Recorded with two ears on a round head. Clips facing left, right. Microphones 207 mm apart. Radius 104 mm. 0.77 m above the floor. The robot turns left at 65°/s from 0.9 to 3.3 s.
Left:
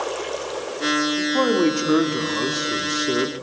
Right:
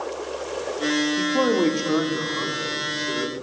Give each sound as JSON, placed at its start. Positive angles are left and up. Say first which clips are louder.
{"t": 1.2, "sound": "a man speaking", "louder": "left 2 dB", "azimuth_deg": -160, "distance_m": 2.0}